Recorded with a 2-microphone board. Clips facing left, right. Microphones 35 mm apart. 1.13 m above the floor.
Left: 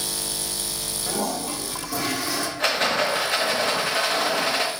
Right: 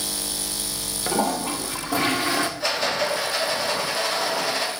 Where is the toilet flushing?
40° right (ahead or behind), 1.0 m.